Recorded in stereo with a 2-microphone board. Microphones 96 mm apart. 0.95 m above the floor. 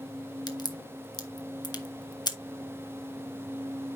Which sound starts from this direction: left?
A crack, at 0.5 s.